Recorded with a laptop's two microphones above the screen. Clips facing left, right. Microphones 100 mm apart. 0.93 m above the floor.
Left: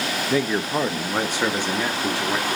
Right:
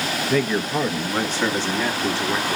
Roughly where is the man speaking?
Centre.